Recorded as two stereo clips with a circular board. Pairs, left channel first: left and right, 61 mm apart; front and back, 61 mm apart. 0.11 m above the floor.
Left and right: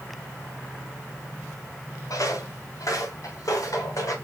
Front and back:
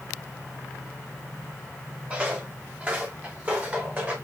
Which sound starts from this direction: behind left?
Footsteps, at 2.1 s.